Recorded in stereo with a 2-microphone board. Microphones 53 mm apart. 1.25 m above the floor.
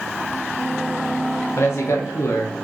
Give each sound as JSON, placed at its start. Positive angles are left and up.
{"t": 1.6, "sound": "a man speaking", "side_deg": 60, "distance_m": 0.8}